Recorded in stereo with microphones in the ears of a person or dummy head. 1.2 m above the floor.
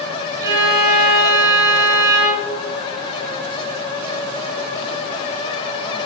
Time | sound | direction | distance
0.4 | a violin | 15° right (ahead or behind) | 1.7 m